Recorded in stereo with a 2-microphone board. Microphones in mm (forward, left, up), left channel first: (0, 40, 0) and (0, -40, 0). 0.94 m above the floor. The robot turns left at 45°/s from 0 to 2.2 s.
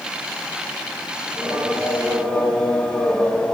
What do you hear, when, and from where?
1.2 s singing: 130° right, 5 m; by 3.5 s 175° right, 5 m